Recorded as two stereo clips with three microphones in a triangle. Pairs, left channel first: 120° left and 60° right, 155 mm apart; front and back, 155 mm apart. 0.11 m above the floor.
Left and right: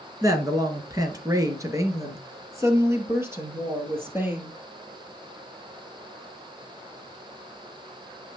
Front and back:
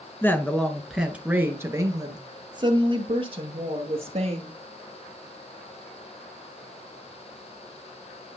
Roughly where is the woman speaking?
Ahead right.